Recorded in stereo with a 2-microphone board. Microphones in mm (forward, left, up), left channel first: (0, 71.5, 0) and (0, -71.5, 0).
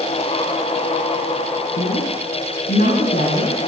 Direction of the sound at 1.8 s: 85° left.